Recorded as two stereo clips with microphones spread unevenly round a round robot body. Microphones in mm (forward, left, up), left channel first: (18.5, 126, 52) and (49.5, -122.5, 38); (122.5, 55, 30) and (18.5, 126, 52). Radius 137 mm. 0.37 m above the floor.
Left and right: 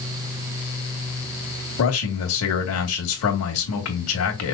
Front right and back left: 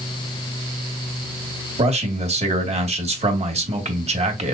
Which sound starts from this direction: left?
A man speaking, at 1.8 s.